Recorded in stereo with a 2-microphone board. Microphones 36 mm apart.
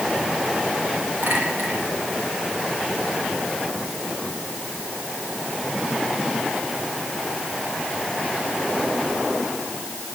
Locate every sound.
1.2 s a clink: 70° right (ahead or behind), 8.5 m